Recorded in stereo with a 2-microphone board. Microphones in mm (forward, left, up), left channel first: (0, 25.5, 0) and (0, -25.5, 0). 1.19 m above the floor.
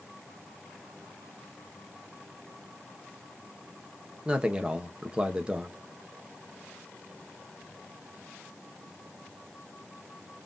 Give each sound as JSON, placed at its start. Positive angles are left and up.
{"t": 4.2, "sound": "a man speaking", "side_deg": -20, "distance_m": 0.8}